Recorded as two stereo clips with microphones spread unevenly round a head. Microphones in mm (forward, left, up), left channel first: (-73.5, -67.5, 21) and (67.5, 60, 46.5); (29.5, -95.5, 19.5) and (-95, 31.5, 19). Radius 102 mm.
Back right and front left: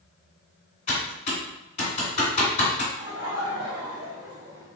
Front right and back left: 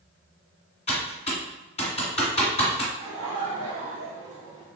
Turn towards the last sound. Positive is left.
turn(degrees=80)